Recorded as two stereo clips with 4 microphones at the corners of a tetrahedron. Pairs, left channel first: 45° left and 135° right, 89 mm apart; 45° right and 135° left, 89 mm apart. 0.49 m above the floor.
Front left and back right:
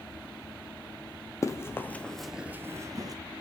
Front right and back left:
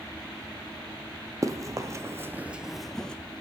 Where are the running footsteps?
90° left, 0.8 m; by 3.1 s 125° right, 0.7 m.